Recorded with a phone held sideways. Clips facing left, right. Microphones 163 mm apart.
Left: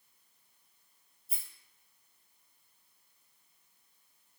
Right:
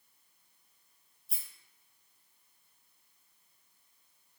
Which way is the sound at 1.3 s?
Centre (ahead or behind).